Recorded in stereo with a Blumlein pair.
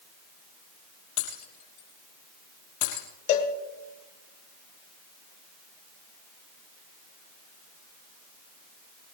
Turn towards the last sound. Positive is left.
turn(degrees=55)